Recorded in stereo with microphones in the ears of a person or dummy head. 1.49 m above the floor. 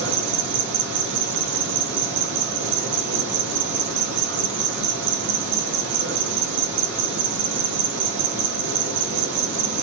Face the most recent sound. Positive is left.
turn(degrees=-65)  # may be behind; listen again after turning